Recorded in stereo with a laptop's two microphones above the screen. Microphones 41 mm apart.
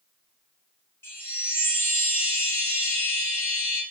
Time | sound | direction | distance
1.0 | a chime | 70° left (ahead or behind) | 1.6 m